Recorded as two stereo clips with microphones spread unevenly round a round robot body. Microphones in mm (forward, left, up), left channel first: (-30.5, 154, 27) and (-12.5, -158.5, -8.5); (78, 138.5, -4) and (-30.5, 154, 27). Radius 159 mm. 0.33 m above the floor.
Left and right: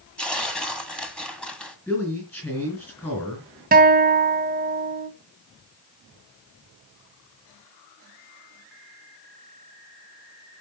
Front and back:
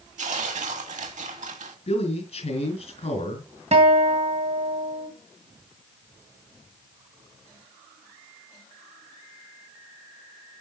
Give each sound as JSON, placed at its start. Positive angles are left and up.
{"t": 0.2, "sound": "tearing paper", "azimuth_deg": -175, "distance_m": 1.6}
{"t": 1.9, "sound": "a man speaking", "azimuth_deg": 5, "distance_m": 3.5}
{"t": 3.7, "sound": "a guitar", "azimuth_deg": -140, "distance_m": 2.0}